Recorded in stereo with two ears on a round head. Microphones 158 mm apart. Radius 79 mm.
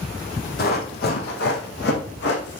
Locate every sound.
0.6 s running footsteps: 55° left (ahead or behind), 2.5 m; by 2.6 s 70° left (ahead or behind), 3.5 m